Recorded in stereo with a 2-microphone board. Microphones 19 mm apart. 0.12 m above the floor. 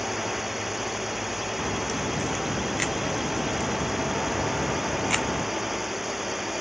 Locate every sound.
0.0 s a drone: 10° right (ahead or behind)
1.6 s a crack: 15° left (ahead or behind)